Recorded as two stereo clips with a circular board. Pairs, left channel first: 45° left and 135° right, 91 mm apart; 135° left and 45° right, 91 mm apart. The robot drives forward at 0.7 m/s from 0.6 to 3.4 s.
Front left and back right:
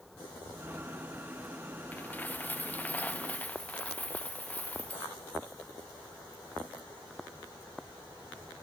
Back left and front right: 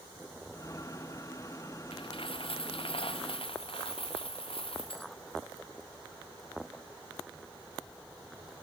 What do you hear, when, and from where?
1.9 s a dropped coin: 115° left; by 5.1 s 120° left